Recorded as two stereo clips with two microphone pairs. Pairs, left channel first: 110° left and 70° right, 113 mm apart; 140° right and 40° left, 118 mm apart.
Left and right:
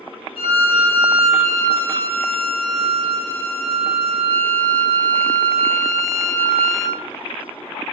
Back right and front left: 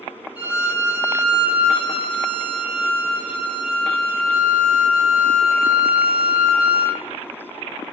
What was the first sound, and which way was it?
A violin, 110° left.